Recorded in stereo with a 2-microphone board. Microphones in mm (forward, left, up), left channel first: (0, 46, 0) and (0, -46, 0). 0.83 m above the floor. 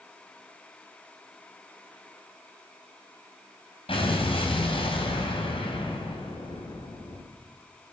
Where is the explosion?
80° left, 4.5 m.